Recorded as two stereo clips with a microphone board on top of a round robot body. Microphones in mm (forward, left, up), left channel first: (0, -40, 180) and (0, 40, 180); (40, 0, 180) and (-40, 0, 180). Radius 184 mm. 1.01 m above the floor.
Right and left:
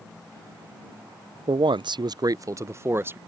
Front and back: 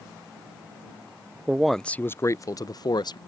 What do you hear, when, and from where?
1.5 s a man speaking: 105° left; by 3.2 s 30° left